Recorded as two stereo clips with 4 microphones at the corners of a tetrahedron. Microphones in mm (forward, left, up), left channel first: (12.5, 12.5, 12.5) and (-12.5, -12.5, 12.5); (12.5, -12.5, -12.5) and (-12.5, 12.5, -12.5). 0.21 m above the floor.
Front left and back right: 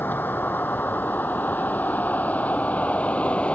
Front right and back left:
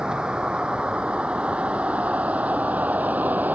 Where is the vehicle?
70° left; by 3.5 s 100° left.